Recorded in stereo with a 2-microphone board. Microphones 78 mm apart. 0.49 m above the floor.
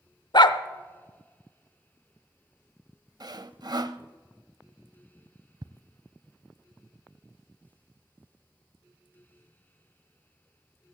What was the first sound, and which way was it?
A dog barking, 70° left (ahead or behind).